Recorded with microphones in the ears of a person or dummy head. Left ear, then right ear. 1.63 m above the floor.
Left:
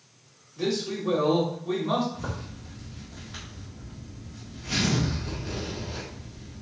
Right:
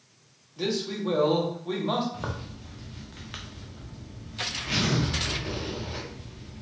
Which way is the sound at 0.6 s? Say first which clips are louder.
Left 1 dB; 15° right (ahead or behind).